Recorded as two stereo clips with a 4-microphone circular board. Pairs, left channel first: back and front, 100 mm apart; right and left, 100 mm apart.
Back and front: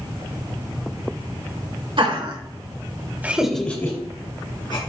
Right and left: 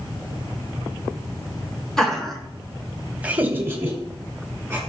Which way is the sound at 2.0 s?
5° right.